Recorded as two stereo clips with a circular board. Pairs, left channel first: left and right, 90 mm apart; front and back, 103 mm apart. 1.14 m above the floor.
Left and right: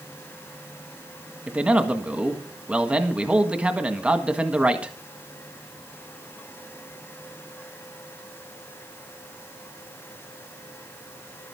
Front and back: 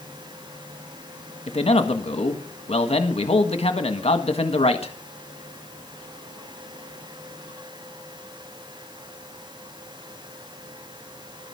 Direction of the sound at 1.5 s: 10° right.